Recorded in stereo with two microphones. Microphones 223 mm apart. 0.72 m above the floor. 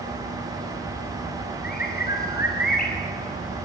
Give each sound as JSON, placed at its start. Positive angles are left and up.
{"t": 1.6, "sound": "a bird", "side_deg": 45, "distance_m": 5.5}